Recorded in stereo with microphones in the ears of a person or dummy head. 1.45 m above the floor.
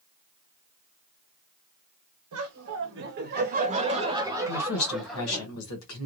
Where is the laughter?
75° right (ahead or behind), 1.1 m; by 5.5 s 10° left (ahead or behind), 1.3 m.